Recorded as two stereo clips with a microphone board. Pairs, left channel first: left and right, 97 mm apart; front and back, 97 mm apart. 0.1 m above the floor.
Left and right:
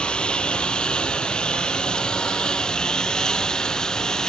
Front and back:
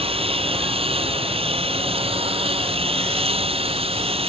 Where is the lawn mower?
170° left; by 4.3 s 175° left.